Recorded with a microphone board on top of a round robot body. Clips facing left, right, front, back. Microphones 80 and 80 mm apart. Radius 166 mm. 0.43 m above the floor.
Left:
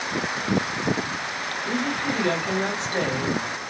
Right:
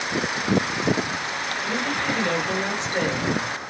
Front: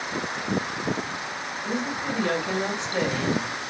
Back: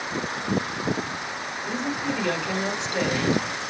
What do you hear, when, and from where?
1.6 s a woman speaking: 50° left, 2.5 m